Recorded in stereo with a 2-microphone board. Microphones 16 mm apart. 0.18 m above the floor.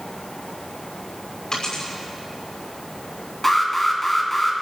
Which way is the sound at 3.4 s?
15° left (ahead or behind).